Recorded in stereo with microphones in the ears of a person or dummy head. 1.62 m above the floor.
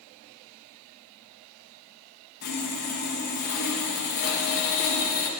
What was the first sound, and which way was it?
Sawing, 50° left (ahead or behind).